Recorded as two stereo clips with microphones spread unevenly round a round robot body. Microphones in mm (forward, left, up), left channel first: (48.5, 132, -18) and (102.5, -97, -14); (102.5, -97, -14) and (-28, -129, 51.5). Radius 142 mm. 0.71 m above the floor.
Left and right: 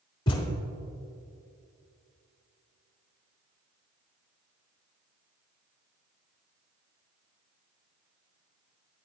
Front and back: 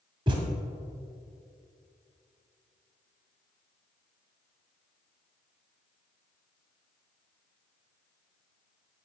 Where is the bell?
I don't hear a bell.